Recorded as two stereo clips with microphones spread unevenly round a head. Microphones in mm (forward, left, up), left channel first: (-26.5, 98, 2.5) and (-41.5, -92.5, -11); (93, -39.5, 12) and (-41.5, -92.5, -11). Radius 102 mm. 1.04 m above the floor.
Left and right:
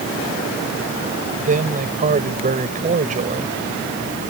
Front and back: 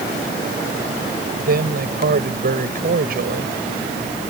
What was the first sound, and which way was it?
A man speaking, 145° right.